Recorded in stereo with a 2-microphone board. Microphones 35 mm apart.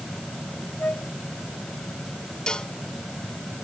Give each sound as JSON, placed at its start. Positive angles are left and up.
{"t": 0.8, "sound": "a flute", "side_deg": 60}
{"t": 2.5, "sound": "a cowbell", "side_deg": 20}